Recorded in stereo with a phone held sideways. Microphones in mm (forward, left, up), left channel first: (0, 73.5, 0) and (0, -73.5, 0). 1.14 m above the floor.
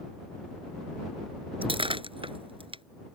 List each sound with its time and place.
1.6 s breaking glass: 35° right (ahead or behind)